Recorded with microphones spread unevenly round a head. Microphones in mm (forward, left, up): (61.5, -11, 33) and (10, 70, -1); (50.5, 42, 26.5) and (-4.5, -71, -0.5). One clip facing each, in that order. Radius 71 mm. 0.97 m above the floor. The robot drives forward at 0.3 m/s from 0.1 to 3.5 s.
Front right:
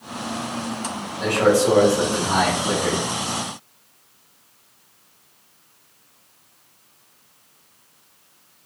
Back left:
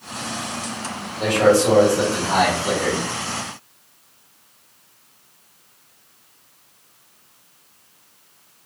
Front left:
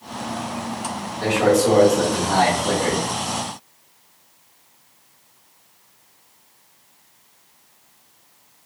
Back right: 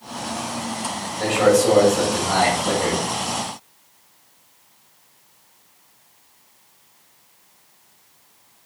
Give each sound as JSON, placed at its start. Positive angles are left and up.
{"t": 1.2, "sound": "a man speaking", "azimuth_deg": -170, "distance_m": 1.1}